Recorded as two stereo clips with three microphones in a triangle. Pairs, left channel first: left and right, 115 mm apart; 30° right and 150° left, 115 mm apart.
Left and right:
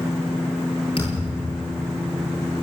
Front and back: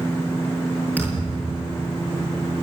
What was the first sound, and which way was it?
A thud, 45° left.